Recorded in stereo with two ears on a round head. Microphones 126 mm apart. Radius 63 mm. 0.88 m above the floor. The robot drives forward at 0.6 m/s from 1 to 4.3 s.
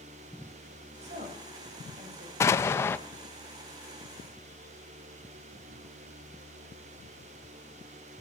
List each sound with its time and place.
1.0 s a woman speaking: 55° right (ahead or behind), 4.5 m; by 2.6 s 45° right (ahead or behind), 5.5 m
2.4 s an explosion: 20° left (ahead or behind), 0.5 m; by 3.0 s 15° left (ahead or behind), 0.6 m